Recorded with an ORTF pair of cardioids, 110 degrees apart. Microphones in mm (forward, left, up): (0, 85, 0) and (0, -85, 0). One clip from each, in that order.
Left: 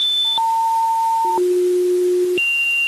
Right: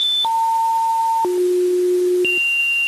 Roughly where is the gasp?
No gasp in this recording.